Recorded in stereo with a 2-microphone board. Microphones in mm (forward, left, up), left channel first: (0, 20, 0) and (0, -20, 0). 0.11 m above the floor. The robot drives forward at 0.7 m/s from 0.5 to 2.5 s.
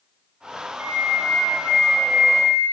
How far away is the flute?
About 0.6 m.